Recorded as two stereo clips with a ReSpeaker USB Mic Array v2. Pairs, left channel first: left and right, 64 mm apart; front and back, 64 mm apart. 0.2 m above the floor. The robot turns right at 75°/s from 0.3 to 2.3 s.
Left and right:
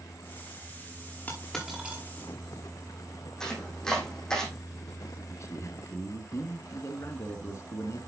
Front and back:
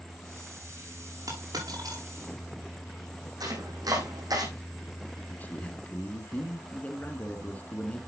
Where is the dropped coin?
155° left, 6 m; by 2.0 s 150° right, 6 m.